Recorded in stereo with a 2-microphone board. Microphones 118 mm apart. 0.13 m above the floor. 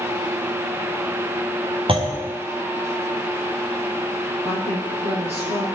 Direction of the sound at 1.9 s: 50° right (ahead or behind).